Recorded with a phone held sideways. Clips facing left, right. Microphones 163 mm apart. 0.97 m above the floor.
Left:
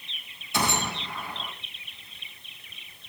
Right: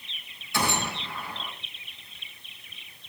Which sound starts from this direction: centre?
A gunshot, at 0.5 s.